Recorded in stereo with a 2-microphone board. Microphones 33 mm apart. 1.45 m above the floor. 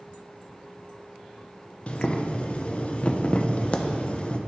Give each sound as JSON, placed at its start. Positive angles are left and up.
{"t": 1.9, "sound": "boiling", "side_deg": 40, "distance_m": 0.6}